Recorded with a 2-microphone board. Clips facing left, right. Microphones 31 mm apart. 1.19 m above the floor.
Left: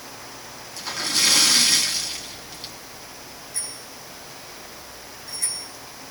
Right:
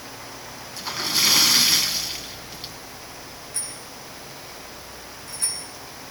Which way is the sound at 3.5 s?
50° right (ahead or behind).